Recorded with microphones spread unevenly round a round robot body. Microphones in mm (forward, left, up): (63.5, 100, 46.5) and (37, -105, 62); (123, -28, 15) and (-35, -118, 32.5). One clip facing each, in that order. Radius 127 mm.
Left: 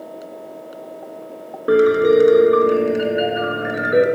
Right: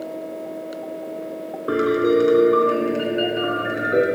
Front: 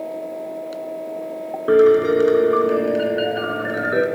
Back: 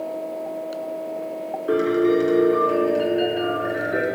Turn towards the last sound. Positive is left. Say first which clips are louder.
# left 5 dB, front 6 dB
turn(degrees=10)